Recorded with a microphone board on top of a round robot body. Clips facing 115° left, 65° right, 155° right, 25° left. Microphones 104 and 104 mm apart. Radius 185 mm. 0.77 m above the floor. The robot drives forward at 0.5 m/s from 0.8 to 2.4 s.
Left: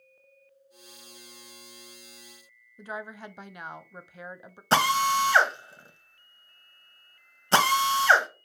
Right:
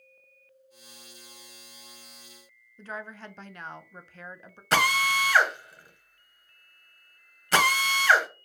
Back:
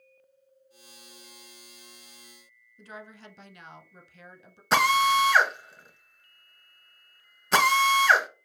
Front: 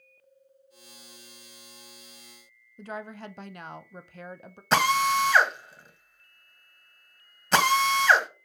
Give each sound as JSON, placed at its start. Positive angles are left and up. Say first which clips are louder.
{"t": 2.8, "sound": "a woman speaking", "louder": "left 1 dB, front 7 dB", "azimuth_deg": 35, "distance_m": 0.5}
{"t": 4.7, "sound": "a drill", "louder": "left 2 dB, back 1 dB", "azimuth_deg": 115, "distance_m": 1.1}